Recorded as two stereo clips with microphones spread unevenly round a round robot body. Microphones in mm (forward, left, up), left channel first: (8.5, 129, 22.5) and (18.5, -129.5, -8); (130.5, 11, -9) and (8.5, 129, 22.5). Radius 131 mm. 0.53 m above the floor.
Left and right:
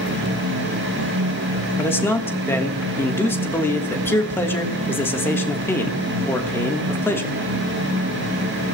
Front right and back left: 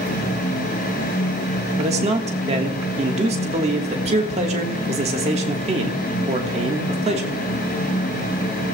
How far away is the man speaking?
About 1.3 m.